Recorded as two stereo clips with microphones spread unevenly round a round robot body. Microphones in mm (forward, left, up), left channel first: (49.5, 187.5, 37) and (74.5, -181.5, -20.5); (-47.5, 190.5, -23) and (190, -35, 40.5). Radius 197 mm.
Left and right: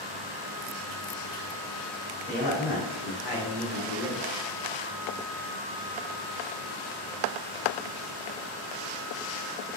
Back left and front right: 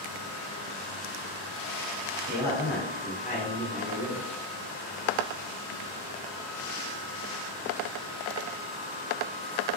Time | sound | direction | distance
2.3 | a man speaking | 145° right | 1.2 m